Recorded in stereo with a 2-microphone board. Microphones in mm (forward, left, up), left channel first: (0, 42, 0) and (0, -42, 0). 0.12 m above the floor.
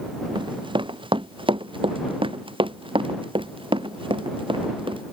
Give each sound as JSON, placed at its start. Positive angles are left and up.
{"t": 0.3, "sound": "running footsteps", "side_deg": -65}